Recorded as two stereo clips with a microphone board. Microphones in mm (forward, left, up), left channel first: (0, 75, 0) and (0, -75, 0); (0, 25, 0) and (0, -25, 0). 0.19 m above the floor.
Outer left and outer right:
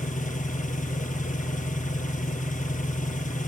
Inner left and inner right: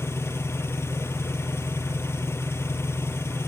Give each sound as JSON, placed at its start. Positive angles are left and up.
{"t": 0.0, "sound": "an engine running", "side_deg": 60, "distance_m": 2.0}